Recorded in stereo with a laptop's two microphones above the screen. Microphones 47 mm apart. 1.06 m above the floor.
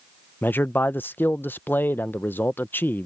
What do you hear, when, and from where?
0.4 s a man speaking: 45° left (ahead or behind)